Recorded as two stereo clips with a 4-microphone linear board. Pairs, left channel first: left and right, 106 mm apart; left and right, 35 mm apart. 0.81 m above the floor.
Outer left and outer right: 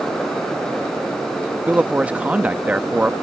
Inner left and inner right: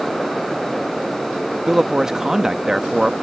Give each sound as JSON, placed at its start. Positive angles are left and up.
{"t": 1.7, "sound": "a man speaking", "side_deg": -15}